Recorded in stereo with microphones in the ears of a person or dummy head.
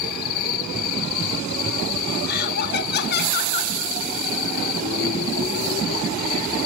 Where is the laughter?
50° left (ahead or behind), 1.7 m.